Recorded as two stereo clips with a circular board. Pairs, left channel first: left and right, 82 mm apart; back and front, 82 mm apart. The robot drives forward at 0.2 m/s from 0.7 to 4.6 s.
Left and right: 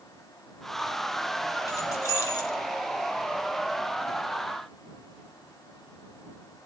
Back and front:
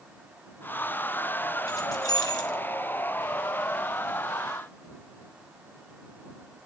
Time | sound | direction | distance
1.7 | keys jangling | 140° left | 3 m